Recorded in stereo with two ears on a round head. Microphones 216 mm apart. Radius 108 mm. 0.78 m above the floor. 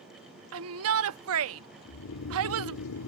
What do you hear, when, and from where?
0.5 s a shout: 65° right (ahead or behind)
1.9 s snoring: 75° left (ahead or behind)